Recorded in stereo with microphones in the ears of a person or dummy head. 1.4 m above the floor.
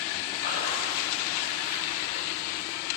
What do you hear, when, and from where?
0.3 s a splash: 40° left (ahead or behind), 3 m